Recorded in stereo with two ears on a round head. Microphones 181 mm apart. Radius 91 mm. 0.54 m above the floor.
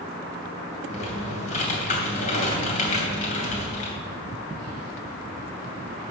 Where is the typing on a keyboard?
35° left (ahead or behind), 3 m.